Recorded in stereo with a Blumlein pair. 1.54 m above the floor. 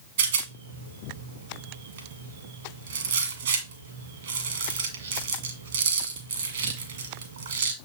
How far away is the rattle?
About 1.6 m.